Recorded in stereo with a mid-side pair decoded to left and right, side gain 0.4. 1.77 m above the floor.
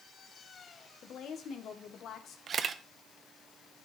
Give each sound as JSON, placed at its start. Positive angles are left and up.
{"t": 1.0, "sound": "a woman speaking", "azimuth_deg": 70, "distance_m": 1.9}
{"t": 2.5, "sound": "a camera shutter", "azimuth_deg": -55, "distance_m": 0.9}